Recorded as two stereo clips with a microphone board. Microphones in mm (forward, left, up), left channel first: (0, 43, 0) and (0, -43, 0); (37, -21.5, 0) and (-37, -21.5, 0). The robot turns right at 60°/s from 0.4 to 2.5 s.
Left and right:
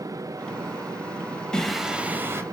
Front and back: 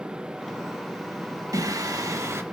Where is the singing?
170° left, 0.7 m; by 2.4 s 135° right, 0.7 m.